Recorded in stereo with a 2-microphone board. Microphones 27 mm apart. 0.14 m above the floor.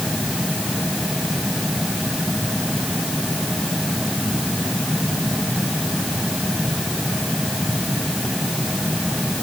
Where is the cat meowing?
I don't hear a cat meowing.